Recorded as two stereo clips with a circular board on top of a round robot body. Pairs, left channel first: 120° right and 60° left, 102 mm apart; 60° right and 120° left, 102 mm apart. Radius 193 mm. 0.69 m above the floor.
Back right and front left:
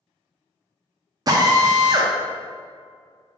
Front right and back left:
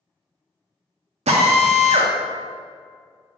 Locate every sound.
1.3 s a drill: 115° left, 0.6 m